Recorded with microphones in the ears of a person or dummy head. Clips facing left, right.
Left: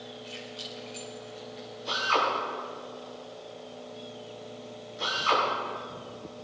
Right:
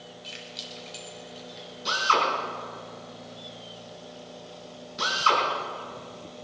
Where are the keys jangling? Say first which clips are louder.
Left 2 dB; 20° right (ahead or behind), 5.5 m; by 1.8 s 5° right (ahead or behind), 5 m.